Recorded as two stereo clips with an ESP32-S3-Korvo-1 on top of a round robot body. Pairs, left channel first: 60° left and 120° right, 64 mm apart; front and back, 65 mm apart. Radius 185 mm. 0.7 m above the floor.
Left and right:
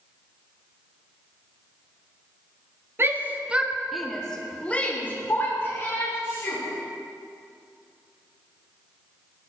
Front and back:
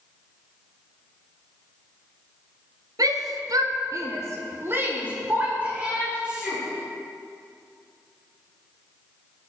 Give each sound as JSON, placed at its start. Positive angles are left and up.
{"t": 3.0, "sound": "a shout", "azimuth_deg": -170, "distance_m": 1.7}